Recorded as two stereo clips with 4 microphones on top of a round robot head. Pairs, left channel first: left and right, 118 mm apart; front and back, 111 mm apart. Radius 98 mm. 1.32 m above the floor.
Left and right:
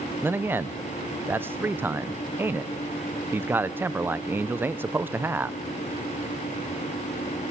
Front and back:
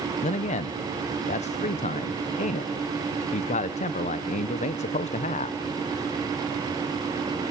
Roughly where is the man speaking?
Ahead.